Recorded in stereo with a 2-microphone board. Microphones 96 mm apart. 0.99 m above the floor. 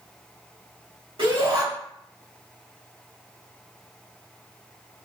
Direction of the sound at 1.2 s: 70° right (ahead or behind).